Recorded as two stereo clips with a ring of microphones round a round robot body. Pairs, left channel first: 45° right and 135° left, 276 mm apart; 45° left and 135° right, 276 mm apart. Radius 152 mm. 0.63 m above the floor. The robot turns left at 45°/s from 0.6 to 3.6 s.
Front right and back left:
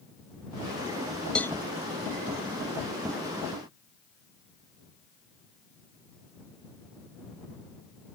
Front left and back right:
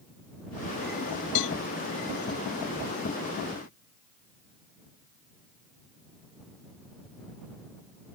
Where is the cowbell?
40° left; by 1.6 s 35° left.